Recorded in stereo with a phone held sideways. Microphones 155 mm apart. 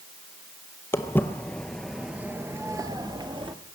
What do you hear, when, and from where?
0.9 s footsteps: 15° left (ahead or behind), 1.0 m; by 3.5 s 35° right (ahead or behind), 1.0 m